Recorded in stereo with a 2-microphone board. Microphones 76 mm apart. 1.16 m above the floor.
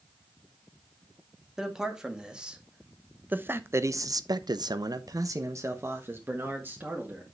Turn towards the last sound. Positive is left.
turn(degrees=-25)  # may be behind; listen again after turning